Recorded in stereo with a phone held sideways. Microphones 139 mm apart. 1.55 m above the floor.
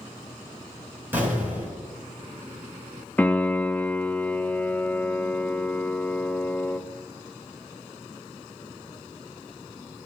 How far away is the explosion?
About 6.5 m.